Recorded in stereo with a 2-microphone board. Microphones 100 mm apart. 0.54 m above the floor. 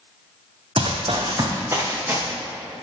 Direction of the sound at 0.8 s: 60° right (ahead or behind).